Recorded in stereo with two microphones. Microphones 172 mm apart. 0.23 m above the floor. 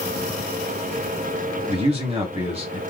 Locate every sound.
1.7 s a man speaking: 35° right (ahead or behind), 1.8 m